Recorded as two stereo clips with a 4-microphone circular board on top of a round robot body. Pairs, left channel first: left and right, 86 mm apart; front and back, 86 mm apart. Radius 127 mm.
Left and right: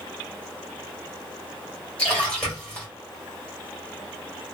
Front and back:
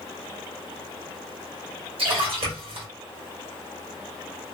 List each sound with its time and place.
2.0 s a splash: 170° left, 1.4 m